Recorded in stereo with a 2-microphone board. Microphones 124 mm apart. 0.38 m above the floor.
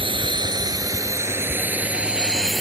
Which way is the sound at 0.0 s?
45° right (ahead or behind).